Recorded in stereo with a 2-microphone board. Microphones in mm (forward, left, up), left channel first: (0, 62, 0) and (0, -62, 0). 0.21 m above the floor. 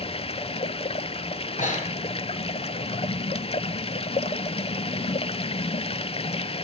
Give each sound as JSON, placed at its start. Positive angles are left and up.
{"t": 0.0, "sound": "running water", "side_deg": 50, "distance_m": 0.8}
{"t": 1.6, "sound": "breathing", "side_deg": 80, "distance_m": 4.5}